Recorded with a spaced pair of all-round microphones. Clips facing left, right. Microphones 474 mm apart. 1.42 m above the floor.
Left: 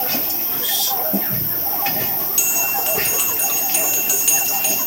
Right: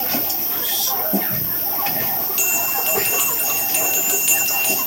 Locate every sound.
0.0 s an insect: 60° left (ahead or behind), 4.5 m
2.4 s a bell: 65° left (ahead or behind), 3 m